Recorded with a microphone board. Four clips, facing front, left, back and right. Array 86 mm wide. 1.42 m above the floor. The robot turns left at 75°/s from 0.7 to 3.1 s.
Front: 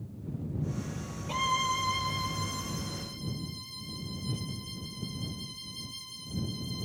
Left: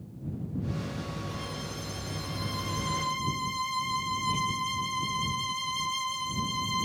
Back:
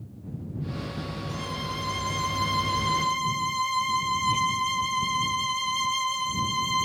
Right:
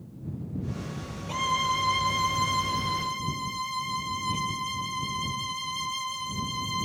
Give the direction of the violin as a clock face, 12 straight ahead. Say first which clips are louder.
Right 11 dB, front 8 dB; 1 o'clock.